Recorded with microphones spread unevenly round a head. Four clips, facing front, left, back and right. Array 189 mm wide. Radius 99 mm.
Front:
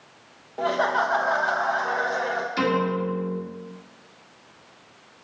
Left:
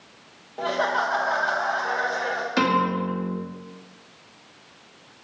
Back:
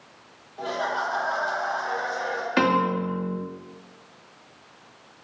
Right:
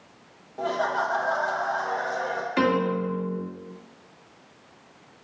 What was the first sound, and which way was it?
Laughter, 40° left.